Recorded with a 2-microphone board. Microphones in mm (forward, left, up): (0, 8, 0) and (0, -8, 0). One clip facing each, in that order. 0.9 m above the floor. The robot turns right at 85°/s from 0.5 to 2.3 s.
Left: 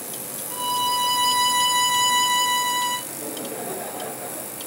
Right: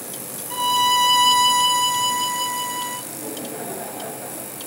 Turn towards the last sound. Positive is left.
turn(degrees=80)